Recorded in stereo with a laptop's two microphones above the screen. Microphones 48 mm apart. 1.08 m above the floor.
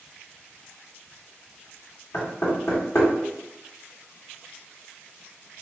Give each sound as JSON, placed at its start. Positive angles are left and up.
{"t": 2.1, "sound": "knocking", "side_deg": 70, "distance_m": 1.7}